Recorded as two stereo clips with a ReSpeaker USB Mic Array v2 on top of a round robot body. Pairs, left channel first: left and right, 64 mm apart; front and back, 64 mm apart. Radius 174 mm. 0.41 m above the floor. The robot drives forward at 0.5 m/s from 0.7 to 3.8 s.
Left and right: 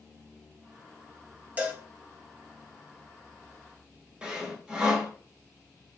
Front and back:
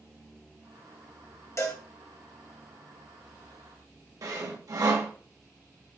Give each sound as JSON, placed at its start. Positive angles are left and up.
{"t": 1.6, "sound": "a cowbell", "azimuth_deg": -30, "distance_m": 1.7}
{"t": 4.2, "sound": "sawing", "azimuth_deg": -165, "distance_m": 1.9}